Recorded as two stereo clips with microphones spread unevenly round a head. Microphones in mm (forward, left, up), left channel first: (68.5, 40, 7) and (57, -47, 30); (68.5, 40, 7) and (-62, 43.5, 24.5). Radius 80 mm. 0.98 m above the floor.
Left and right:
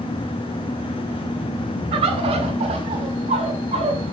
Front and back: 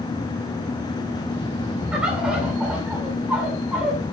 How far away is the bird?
About 2 m.